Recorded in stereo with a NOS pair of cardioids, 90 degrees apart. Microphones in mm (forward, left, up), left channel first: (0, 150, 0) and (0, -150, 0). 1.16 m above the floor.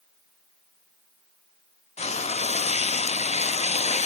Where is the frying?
20° left, 1.2 m.